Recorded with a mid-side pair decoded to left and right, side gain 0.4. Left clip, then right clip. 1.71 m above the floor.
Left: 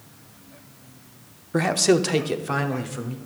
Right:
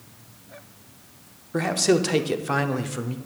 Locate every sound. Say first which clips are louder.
1.5 s a man speaking: left 2 dB; 35° left, 0.8 m; by 3.2 s 30° right, 1.0 m